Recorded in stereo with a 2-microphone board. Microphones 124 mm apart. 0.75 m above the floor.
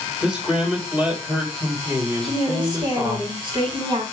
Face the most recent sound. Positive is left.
turn(degrees=-40)  # may be behind; listen again after turning